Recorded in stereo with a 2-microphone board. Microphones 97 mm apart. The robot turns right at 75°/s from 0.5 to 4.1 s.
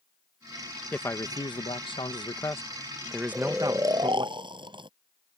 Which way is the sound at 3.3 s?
175° left.